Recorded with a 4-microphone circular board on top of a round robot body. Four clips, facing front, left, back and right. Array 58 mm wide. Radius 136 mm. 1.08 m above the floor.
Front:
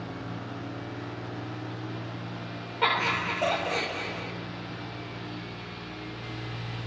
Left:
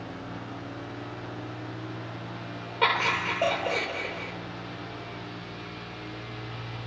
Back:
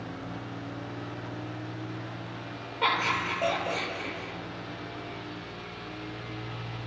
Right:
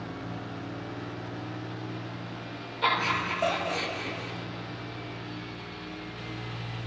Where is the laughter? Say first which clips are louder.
Left 2 dB, front 1 dB; 85° left, 6.5 m.